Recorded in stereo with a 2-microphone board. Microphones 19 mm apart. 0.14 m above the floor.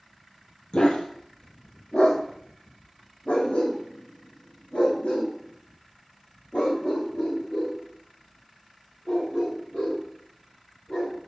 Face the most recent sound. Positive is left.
turn(degrees=80)